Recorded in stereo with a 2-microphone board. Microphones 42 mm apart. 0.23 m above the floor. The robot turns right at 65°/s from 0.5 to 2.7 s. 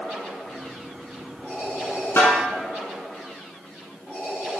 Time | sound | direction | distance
2.2 | a snare drum | 60° left (ahead or behind) | 1.1 m